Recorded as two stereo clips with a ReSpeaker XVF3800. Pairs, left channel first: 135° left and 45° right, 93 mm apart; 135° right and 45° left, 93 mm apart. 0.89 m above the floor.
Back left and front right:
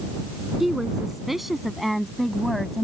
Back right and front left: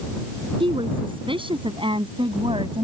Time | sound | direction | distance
0.6 | a woman speaking | 40° left | ?